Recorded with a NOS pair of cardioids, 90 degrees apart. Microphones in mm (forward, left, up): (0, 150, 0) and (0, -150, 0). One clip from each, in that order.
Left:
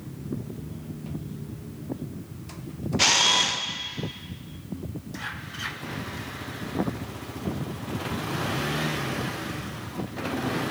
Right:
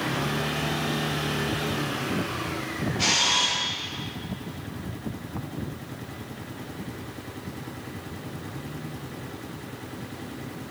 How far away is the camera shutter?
About 0.7 m.